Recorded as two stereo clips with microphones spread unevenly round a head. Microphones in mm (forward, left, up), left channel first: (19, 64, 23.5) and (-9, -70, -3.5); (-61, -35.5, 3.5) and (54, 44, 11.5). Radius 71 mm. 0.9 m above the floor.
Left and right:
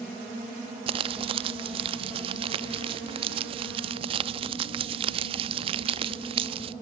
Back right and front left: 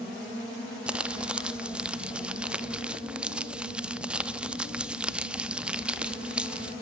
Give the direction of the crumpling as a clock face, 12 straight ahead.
2 o'clock.